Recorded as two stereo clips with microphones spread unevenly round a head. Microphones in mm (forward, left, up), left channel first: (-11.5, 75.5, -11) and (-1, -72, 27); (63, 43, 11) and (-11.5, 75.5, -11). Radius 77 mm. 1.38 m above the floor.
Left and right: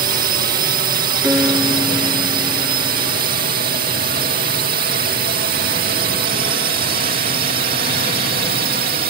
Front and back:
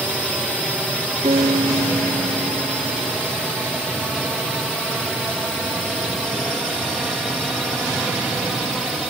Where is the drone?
115° right.